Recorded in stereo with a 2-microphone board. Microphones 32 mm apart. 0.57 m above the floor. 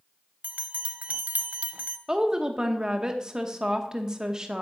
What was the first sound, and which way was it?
A bell, 55° right (ahead or behind).